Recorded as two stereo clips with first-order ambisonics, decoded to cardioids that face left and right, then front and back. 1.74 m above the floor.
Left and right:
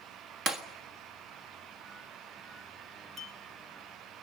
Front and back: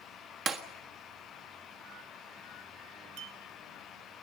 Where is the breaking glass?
135° right, 1.5 m.